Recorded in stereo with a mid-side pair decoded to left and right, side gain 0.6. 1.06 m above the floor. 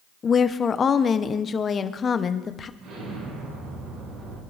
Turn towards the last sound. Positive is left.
turn(degrees=-60)